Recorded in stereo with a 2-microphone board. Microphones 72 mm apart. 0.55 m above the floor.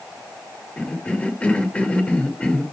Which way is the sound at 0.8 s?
15° left (ahead or behind).